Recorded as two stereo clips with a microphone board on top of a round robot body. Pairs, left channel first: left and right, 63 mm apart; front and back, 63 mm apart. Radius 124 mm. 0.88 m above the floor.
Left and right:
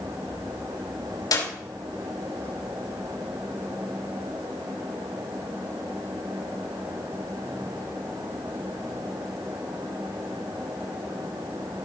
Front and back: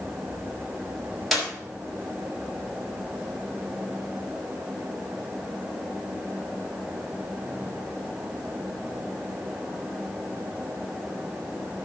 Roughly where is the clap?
Left.